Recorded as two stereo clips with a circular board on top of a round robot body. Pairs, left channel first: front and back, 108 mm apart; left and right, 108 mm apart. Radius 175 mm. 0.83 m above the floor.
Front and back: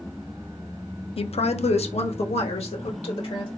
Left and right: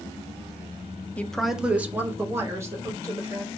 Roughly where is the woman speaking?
Ahead.